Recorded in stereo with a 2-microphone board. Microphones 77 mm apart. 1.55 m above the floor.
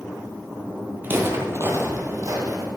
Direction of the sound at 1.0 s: 25° right (ahead or behind).